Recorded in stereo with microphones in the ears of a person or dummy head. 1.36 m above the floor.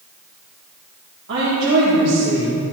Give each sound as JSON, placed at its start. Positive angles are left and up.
{"t": 1.3, "sound": "a woman speaking", "side_deg": -70, "distance_m": 2.0}